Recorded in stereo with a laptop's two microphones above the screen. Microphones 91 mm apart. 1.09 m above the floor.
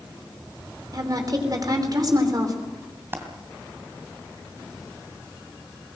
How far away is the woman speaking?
About 3 m.